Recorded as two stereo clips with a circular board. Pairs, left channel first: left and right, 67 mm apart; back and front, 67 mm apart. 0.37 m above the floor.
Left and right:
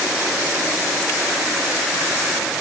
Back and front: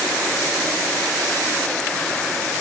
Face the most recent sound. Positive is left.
No sound to turn to.